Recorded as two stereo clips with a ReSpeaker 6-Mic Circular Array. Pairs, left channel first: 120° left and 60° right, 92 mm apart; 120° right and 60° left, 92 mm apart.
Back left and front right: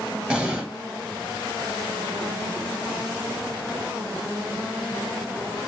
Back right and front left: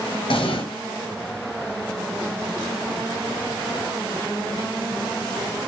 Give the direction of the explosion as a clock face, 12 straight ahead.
5 o'clock.